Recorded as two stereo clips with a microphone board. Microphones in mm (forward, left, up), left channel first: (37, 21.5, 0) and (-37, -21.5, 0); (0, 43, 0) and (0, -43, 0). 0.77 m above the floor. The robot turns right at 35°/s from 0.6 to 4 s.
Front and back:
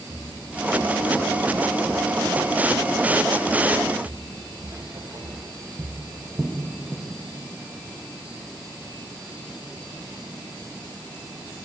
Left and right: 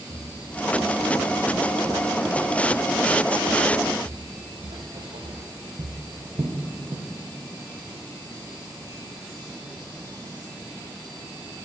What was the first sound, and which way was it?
Footsteps, 115° left.